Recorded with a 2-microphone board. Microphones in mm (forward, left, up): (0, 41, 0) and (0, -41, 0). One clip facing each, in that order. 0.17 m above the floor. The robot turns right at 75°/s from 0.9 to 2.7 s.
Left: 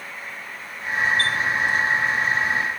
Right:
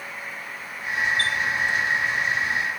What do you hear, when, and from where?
1.2 s a chime: 40° right (ahead or behind), 0.7 m